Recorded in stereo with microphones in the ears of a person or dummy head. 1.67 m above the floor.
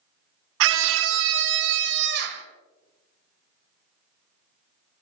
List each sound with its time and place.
0.6 s a scream: 80° right, 0.7 m; by 2.5 s 70° right (ahead or behind), 2 m